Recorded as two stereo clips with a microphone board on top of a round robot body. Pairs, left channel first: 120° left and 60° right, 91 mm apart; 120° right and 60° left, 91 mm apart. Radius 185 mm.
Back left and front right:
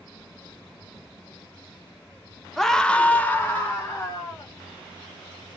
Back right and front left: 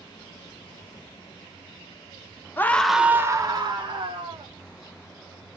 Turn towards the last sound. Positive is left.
turn(degrees=55)